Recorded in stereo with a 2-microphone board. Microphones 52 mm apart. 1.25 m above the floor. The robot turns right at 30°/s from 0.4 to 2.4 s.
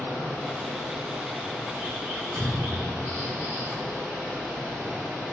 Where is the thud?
65° right (ahead or behind), 1.1 m.